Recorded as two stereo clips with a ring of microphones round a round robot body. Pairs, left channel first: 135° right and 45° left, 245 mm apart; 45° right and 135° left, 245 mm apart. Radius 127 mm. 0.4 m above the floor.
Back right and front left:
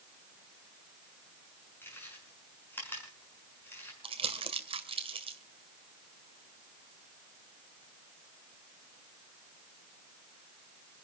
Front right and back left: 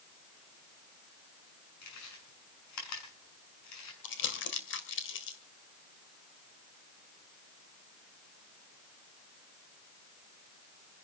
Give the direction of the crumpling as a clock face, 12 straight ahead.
1 o'clock.